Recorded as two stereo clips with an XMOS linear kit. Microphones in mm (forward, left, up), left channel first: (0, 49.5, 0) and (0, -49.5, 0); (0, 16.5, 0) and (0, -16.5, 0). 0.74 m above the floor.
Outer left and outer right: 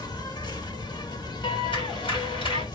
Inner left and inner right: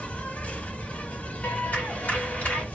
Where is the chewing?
No chewing in this recording.